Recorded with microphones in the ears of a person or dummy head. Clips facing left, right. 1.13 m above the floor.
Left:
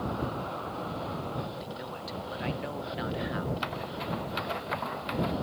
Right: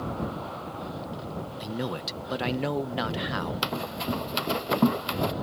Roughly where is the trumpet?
I don't hear a trumpet.